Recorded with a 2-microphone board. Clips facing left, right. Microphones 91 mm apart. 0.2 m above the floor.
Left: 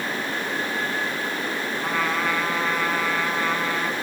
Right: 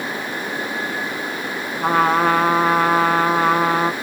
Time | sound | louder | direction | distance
1.8 | a trumpet | right 10 dB | 50° right (ahead or behind) | 0.7 m